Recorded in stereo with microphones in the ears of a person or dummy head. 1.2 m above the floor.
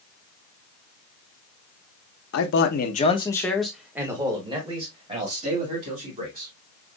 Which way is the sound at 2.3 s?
70° left (ahead or behind).